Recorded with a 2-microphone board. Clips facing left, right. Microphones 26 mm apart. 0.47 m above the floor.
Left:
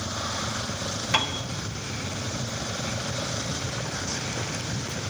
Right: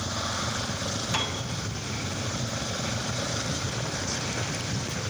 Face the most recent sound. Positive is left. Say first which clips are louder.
# left 6 dB
turn(degrees=45)  # may be behind; listen again after turning